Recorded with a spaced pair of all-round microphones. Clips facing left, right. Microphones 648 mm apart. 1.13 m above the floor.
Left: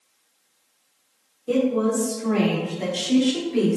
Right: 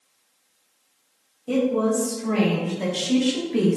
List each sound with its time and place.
1.5 s a woman speaking: 20° right (ahead or behind), 3 m; by 3.8 s 50° right (ahead or behind), 1.9 m